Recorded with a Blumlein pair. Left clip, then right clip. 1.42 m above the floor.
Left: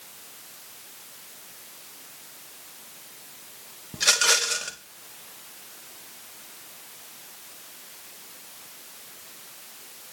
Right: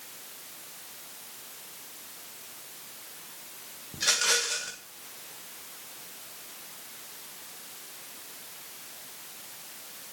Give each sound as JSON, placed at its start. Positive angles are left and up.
{"t": 3.9, "sound": "a rattle", "azimuth_deg": 70, "distance_m": 0.8}